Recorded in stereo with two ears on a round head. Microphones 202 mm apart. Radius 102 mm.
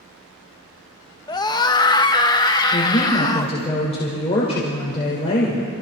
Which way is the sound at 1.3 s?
20° left (ahead or behind).